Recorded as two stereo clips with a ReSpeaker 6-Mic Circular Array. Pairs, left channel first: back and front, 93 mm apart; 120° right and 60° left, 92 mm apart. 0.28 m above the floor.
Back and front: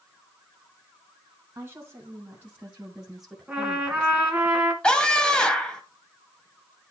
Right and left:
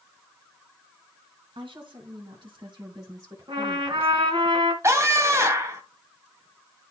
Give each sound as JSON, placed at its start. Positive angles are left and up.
{"t": 1.6, "sound": "a woman speaking", "azimuth_deg": 65, "distance_m": 3.0}
{"t": 3.5, "sound": "a trumpet", "azimuth_deg": 80, "distance_m": 2.0}
{"t": 4.8, "sound": "a scream", "azimuth_deg": 105, "distance_m": 1.2}